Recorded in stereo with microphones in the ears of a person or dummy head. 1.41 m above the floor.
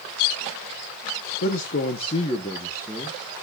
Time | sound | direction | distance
1.4 | a man speaking | 50° left (ahead or behind) | 1.2 m